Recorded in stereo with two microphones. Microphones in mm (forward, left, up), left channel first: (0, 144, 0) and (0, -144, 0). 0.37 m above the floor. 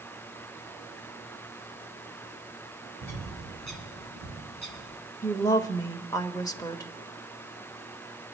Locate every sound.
3.0 s a bird: 70° right (ahead or behind), 3 m
5.2 s a woman speaking: 10° left (ahead or behind), 1.0 m